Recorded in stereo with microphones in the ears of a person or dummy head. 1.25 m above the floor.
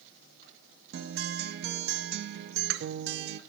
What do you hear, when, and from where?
0.9 s a guitar: 50° right (ahead or behind), 0.6 m